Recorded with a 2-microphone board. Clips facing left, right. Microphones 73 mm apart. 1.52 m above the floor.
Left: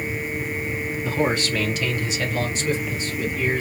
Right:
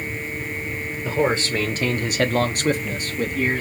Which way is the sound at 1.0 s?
20° right (ahead or behind).